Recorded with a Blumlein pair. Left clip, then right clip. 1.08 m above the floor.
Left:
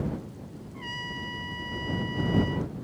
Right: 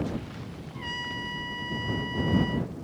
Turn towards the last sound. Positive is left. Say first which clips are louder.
# right 2 dB
turn(degrees=-5)